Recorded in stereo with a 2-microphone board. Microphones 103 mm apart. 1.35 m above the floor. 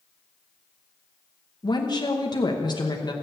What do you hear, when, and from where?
1.6 s a woman speaking: 45° left (ahead or behind), 1.1 m